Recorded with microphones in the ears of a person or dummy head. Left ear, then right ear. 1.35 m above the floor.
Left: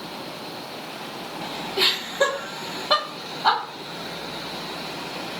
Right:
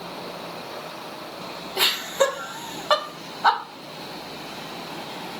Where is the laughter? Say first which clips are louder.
Even; 85° right, 1.4 m.